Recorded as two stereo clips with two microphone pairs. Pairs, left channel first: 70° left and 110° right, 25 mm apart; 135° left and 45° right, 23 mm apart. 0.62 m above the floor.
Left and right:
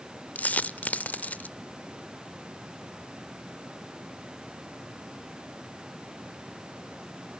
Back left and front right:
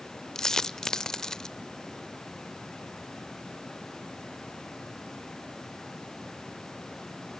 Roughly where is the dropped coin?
Left.